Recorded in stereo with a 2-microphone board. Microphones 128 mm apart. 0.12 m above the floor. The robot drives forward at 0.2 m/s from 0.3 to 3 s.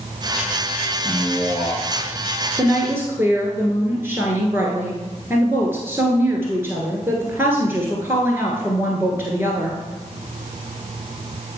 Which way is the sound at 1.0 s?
Centre (ahead or behind).